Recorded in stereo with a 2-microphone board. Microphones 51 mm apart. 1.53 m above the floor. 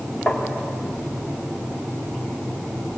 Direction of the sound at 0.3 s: 20° left (ahead or behind).